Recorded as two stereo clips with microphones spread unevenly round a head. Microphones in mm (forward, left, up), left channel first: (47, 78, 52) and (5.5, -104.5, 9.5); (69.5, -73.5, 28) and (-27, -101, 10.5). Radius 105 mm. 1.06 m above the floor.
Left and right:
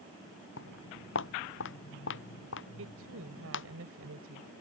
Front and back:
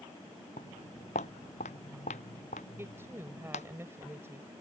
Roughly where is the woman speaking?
Right.